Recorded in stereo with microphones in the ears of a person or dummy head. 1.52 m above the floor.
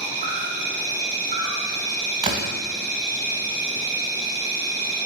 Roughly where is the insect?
Centre.